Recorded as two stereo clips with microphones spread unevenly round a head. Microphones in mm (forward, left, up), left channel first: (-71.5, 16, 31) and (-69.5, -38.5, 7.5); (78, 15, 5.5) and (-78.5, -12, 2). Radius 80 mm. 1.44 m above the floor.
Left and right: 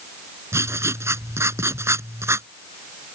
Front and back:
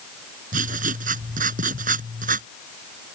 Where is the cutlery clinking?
No cutlery clinking in this recording.